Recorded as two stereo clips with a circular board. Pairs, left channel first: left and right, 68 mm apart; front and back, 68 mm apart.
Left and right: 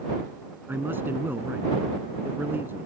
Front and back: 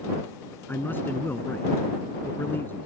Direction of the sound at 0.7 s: 45° right.